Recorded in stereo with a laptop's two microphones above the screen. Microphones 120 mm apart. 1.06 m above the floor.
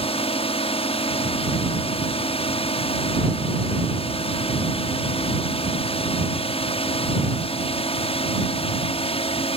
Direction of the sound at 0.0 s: 55° left (ahead or behind).